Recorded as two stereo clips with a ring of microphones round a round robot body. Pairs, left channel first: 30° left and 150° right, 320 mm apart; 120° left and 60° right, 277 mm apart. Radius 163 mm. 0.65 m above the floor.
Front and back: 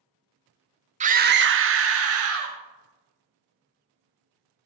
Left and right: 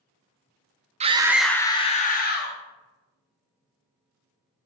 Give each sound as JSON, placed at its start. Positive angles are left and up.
{"t": 1.0, "sound": "a scream", "azimuth_deg": -100, "distance_m": 0.6}